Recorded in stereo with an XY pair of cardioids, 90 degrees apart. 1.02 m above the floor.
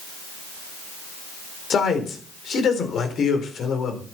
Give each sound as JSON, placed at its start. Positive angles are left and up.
{"t": 1.7, "sound": "a man speaking", "azimuth_deg": 65, "distance_m": 4.0}